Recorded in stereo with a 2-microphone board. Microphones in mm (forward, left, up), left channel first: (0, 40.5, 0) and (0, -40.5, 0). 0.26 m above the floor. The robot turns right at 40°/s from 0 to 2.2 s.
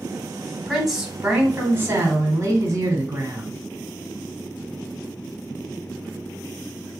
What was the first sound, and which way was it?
A woman speaking, 175° left.